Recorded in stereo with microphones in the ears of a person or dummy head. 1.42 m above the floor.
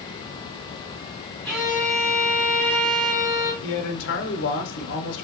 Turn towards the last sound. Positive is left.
turn(degrees=60)  # may be behind; listen again after turning